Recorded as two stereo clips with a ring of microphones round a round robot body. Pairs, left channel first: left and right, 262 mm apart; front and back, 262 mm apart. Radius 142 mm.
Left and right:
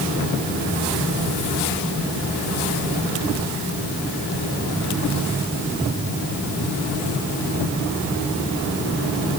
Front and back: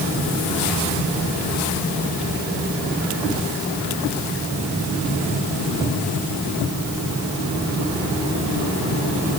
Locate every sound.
Only background noise.